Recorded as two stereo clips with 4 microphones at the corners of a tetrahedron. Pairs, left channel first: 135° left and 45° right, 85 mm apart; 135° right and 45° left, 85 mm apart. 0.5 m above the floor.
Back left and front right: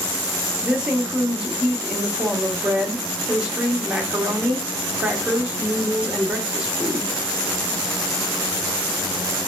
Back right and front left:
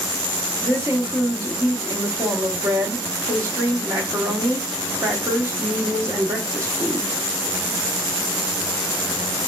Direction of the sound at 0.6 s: 25° left.